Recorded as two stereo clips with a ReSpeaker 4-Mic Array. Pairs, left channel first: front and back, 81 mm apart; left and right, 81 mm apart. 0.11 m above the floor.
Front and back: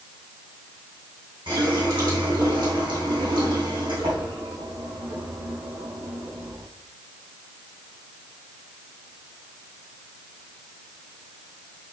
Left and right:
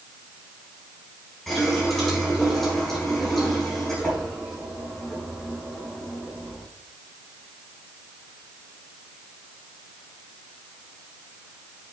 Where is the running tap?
175° left, 3.5 m.